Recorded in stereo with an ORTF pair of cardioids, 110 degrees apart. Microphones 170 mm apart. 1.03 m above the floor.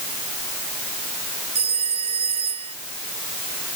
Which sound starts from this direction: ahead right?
A phone ringing, at 1.6 s.